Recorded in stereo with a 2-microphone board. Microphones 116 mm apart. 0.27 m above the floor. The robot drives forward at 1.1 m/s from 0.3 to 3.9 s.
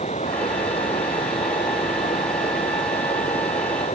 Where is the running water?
85° left; by 4.0 s 80° left.